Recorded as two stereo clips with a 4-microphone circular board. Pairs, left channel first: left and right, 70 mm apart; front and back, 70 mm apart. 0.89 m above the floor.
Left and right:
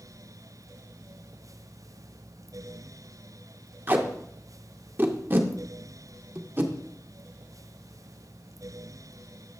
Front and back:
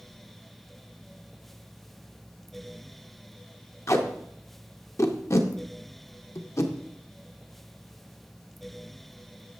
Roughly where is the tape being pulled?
Ahead right.